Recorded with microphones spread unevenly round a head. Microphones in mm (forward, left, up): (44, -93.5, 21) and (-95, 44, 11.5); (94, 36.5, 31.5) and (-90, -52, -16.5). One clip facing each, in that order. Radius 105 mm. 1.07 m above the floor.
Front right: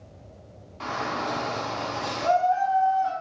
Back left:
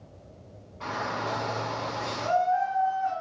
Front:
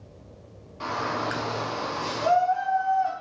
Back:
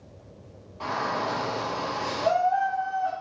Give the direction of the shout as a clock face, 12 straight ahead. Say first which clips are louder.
Front right 2 dB, even; 1 o'clock.